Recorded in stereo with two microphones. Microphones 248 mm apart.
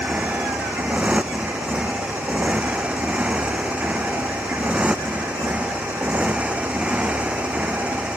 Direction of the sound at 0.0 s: 5° right (ahead or behind).